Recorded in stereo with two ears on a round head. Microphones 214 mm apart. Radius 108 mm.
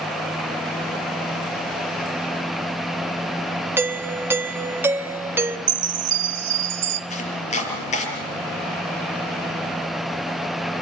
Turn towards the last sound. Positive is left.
turn(degrees=30)  # may be behind; listen again after turning